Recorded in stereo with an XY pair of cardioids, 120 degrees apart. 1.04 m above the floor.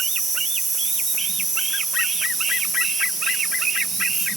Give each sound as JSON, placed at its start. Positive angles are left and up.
{"t": 0.0, "sound": "an insect", "azimuth_deg": -60, "distance_m": 3.0}